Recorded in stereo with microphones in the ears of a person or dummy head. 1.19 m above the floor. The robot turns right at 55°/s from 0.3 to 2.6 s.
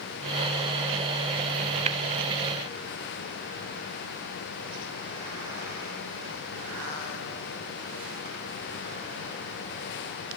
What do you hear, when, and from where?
1.9 s tapping: 35° right (ahead or behind), 0.6 m; by 2.0 s 40° right (ahead or behind), 0.6 m